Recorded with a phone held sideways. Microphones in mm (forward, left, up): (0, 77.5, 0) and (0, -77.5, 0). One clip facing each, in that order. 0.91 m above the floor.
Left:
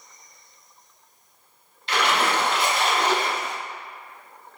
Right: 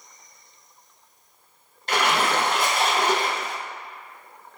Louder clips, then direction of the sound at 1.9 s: Even; 45° right (ahead or behind).